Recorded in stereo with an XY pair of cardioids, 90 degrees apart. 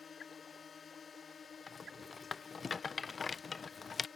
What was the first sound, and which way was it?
A drone, 50° left.